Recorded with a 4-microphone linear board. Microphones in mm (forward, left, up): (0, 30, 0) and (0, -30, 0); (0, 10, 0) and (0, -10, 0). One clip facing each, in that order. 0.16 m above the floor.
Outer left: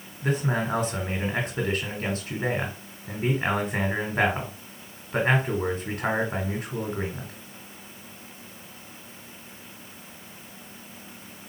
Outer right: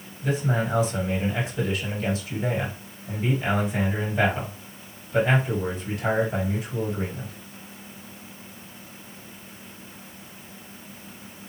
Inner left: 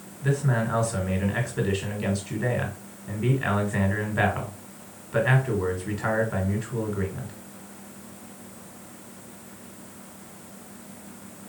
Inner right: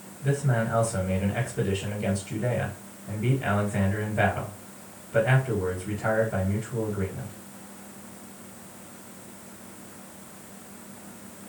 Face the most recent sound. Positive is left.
turn(degrees=50)  # may be behind; listen again after turning